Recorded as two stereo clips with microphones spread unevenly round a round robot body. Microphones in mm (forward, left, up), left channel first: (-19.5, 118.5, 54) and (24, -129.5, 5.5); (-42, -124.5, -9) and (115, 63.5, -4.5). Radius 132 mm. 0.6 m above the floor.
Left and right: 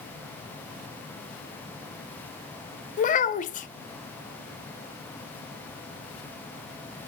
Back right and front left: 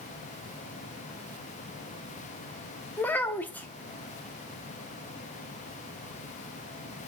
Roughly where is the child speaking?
Behind left.